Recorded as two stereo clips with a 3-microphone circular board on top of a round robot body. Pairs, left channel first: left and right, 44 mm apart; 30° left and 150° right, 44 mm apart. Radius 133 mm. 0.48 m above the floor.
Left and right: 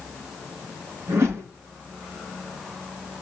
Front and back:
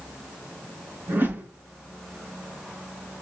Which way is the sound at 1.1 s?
105° right.